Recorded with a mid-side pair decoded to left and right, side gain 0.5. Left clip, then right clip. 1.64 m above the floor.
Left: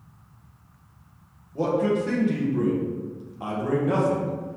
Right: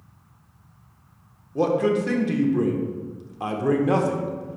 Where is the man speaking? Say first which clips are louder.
Right 2 dB; 40° right, 0.8 m.